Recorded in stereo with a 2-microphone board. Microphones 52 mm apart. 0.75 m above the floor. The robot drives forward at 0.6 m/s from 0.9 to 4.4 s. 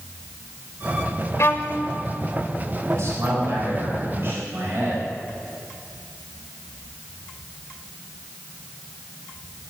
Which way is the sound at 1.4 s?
60° left (ahead or behind).